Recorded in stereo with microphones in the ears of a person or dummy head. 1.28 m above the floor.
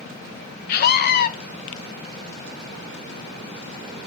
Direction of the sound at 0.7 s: 50° left (ahead or behind).